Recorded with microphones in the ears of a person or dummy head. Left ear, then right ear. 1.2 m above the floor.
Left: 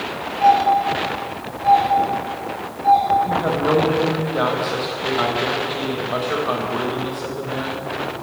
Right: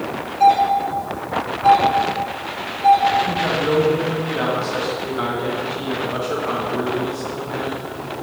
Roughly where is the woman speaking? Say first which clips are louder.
Even; centre.